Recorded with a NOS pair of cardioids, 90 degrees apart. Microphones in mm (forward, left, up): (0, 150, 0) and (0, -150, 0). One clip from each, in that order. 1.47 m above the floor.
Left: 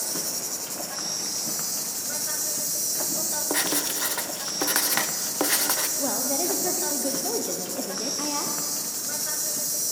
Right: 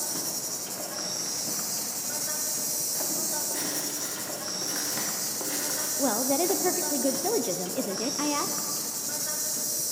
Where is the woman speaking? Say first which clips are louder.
Right 1 dB; 15° right, 0.5 m.